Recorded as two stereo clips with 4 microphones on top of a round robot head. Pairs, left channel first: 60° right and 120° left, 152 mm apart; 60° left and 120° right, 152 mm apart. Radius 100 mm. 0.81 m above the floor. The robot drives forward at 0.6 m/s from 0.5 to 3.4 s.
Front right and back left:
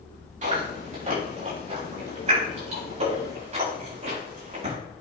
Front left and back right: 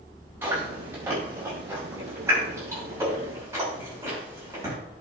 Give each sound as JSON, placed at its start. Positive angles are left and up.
{"t": 0.4, "sound": "chewing", "azimuth_deg": 160, "distance_m": 6.0}